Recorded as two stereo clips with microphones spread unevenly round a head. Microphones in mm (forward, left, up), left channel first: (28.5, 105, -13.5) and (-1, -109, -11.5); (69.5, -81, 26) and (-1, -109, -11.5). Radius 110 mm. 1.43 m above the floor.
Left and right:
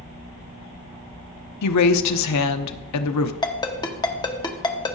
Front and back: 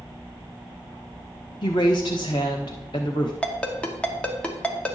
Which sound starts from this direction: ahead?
A ringtone, at 3.4 s.